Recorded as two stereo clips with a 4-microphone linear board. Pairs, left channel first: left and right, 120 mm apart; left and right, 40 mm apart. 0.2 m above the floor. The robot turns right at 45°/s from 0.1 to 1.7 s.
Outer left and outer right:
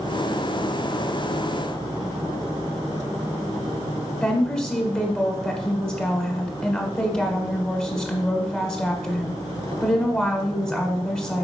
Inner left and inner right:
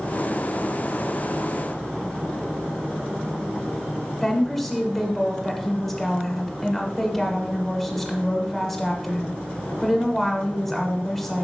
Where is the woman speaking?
10° left (ahead or behind), 1.0 m.